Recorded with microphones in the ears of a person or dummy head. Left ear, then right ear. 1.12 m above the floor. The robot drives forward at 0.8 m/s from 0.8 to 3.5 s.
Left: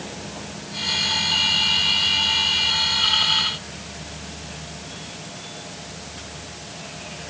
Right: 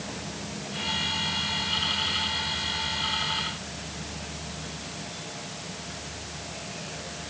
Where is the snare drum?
I don't hear a snare drum.